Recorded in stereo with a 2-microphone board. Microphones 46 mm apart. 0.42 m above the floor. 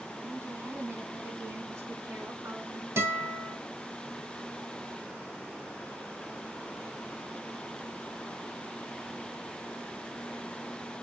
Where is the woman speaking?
60° right (ahead or behind), 4 m; by 2.9 s 75° right (ahead or behind), 5.5 m.